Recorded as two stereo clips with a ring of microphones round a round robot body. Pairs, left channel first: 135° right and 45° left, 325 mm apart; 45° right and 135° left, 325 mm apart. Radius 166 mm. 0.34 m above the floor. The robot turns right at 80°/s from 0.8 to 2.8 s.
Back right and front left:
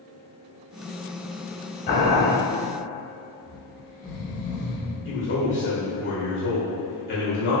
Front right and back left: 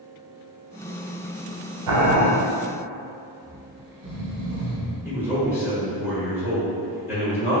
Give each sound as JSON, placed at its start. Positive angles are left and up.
{"t": 1.9, "sound": "boiling", "azimuth_deg": 160, "distance_m": 0.8}
{"t": 3.4, "sound": "snoring", "azimuth_deg": 135, "distance_m": 1.0}
{"t": 5.0, "sound": "a man speaking", "azimuth_deg": -145, "distance_m": 1.4}